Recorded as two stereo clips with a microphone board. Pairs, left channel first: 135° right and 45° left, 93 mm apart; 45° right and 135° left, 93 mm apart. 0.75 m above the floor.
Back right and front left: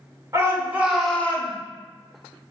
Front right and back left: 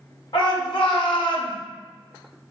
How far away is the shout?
About 1.8 m.